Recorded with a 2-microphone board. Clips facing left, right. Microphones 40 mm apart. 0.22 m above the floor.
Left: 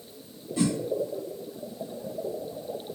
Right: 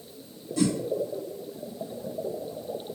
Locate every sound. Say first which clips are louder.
0.6 s a whoosh: right 1 dB; 25° left (ahead or behind), 0.8 m